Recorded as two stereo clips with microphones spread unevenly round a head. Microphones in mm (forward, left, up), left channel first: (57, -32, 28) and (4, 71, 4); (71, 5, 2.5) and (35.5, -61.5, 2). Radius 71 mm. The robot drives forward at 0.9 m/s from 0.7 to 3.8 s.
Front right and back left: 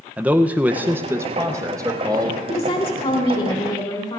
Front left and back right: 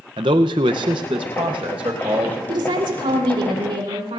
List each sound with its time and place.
0.2 s a man speaking: 160° right, 0.7 m; by 2.4 s 175° right, 2 m
2.5 s a woman speaking: 110° right, 3.5 m; by 4.2 s 125° right, 4 m